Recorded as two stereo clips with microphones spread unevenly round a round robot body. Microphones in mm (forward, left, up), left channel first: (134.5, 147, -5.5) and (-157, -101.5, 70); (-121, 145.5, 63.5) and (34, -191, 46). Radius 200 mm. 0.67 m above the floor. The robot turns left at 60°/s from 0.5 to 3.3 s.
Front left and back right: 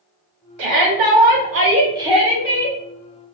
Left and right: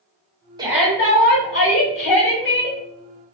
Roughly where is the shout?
Behind right.